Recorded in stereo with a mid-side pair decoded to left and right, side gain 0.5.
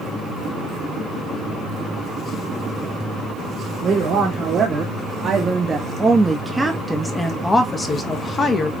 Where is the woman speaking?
55° right, 1.9 m; by 8.7 s 45° left, 1.3 m.